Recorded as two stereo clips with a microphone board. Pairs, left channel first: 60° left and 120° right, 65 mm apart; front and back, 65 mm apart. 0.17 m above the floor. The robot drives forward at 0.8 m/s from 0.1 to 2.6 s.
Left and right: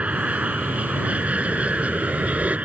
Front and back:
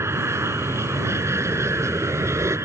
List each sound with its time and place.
0.0 s an aircraft: straight behind